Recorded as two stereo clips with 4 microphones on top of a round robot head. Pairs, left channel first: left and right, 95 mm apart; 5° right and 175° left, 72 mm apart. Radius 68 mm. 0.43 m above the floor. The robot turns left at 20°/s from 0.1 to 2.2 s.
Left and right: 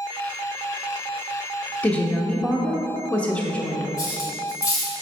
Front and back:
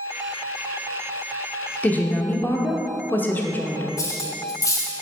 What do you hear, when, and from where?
1.8 s a woman speaking: 35° left, 0.9 m; by 3.9 s 30° left, 0.9 m
4.0 s cutlery clinking: 35° left, 1.3 m